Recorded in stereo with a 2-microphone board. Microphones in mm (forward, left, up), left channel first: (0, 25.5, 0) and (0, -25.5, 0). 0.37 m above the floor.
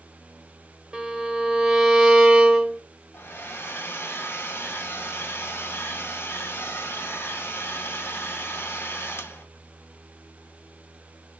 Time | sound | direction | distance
0.9 | a violin | 20° right (ahead or behind) | 1.3 m
3.1 | a hair dryer | 50° left (ahead or behind) | 2.0 m